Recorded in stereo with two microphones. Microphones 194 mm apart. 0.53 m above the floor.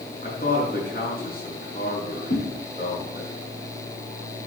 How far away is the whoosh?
About 7 m.